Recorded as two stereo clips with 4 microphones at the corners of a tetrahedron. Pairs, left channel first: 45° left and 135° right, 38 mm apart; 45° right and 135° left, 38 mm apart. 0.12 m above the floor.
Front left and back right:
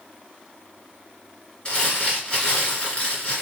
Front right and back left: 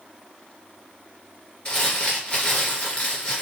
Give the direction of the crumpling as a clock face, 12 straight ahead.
12 o'clock.